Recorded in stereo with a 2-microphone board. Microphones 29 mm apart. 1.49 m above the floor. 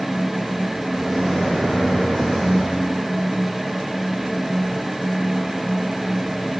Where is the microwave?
10° left (ahead or behind), 4 m.